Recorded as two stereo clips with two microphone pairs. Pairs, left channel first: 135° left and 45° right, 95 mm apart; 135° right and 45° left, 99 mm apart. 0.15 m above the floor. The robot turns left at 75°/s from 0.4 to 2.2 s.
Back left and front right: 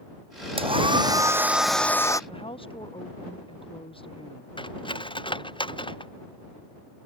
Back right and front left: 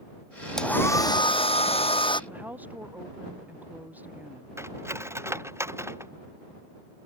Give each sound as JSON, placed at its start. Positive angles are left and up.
{"t": 0.6, "sound": "a hair dryer", "azimuth_deg": -50}
{"t": 2.3, "sound": "a woman speaking", "azimuth_deg": 120}
{"t": 4.6, "sound": "cutlery clinking", "azimuth_deg": 110}